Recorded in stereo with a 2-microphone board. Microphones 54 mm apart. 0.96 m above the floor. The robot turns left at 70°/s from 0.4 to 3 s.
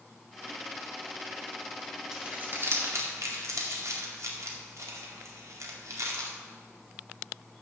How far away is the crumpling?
About 2 m.